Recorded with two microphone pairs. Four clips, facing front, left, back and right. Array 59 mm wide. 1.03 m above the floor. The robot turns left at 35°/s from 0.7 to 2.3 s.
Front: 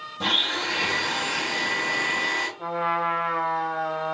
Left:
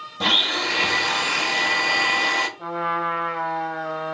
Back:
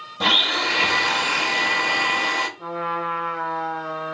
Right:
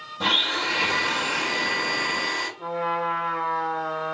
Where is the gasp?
No gasp in this recording.